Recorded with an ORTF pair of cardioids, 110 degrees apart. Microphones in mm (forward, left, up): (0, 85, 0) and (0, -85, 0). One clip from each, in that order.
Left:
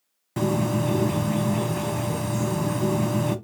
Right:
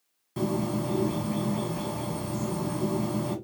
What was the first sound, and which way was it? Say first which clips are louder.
A bird: left 5 dB; 35° left.